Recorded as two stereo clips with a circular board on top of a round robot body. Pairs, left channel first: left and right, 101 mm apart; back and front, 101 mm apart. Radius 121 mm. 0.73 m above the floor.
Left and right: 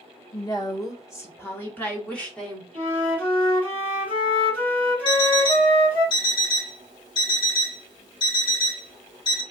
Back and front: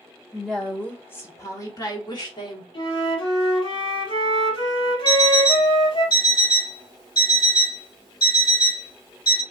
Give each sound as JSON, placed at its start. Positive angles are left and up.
{"t": 0.3, "sound": "a woman speaking", "azimuth_deg": 90, "distance_m": 1.2}
{"t": 2.7, "sound": "a flute", "azimuth_deg": 160, "distance_m": 3.0}
{"t": 5.0, "sound": "an alarm clock", "azimuth_deg": 140, "distance_m": 2.5}